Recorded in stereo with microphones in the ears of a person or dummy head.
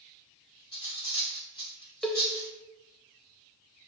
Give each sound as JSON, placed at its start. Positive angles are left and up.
{"t": 0.7, "sound": "cutlery clinking", "side_deg": 25, "distance_m": 1.8}
{"t": 2.0, "sound": "a cowbell", "side_deg": 0, "distance_m": 0.5}